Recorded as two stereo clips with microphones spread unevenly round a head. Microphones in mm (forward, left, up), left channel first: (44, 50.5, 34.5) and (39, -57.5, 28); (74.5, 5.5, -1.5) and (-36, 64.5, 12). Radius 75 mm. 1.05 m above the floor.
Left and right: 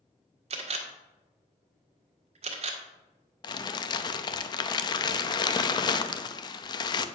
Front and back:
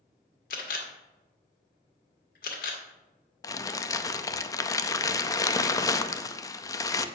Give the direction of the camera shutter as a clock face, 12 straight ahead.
2 o'clock.